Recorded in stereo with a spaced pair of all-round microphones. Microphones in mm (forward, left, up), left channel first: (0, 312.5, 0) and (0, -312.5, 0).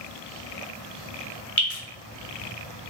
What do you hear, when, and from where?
1.6 s dripping: 50° left (ahead or behind), 2.5 m